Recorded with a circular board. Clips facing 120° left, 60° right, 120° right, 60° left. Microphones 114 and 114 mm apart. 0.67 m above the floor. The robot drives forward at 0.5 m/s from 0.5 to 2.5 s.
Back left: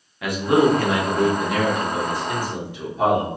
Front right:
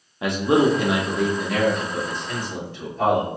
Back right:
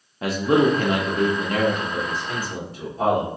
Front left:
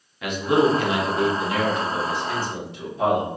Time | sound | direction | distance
0.2 | a man speaking | 100° right | 0.5 m